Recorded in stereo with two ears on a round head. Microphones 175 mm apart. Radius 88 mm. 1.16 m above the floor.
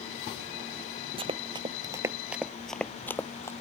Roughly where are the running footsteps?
Right.